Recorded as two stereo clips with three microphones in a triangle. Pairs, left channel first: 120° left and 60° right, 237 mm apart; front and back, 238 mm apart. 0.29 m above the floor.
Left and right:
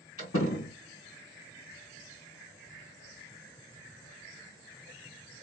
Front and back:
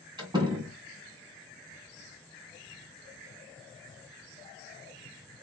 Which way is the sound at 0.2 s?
110° left.